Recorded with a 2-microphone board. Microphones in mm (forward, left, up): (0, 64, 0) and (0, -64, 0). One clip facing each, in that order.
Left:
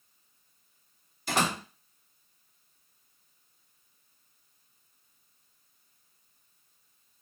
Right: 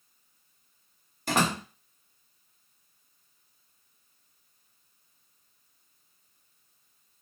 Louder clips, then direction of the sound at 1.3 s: Right 2 dB; 50° right (ahead or behind).